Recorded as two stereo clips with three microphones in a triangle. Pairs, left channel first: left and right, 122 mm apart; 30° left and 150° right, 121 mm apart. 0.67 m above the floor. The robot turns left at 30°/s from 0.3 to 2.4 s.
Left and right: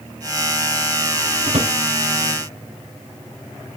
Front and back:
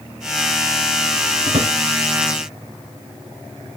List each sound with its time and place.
1.5 s a drawer: 120° right, 1.8 m; by 1.7 s 130° right, 1.8 m